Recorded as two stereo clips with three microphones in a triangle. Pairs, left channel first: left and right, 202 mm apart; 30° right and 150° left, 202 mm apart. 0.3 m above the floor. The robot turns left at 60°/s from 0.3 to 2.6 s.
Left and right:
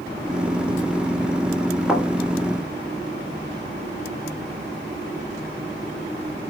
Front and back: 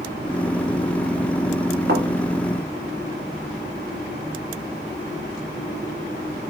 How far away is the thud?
About 1.2 m.